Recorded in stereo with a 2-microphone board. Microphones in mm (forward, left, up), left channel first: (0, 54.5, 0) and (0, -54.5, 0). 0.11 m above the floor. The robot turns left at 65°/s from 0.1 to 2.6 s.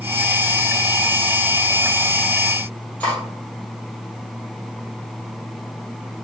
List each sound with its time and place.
3.0 s cutlery clinking: 15° left (ahead or behind), 1.7 m